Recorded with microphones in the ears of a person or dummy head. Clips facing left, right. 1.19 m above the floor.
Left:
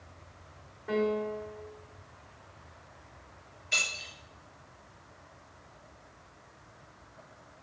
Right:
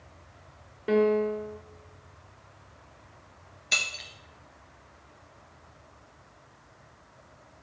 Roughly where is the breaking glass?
Right.